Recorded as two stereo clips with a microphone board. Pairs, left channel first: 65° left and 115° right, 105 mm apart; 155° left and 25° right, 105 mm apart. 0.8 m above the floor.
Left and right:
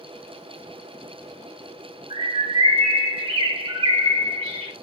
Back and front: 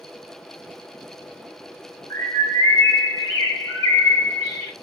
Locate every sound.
2.1 s a bird: 145° right, 1.3 m